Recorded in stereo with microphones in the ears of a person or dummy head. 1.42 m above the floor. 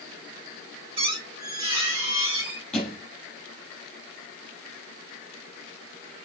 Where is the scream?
No scream in this recording.